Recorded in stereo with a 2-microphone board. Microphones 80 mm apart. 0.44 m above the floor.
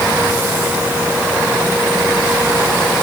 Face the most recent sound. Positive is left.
No sound to turn to.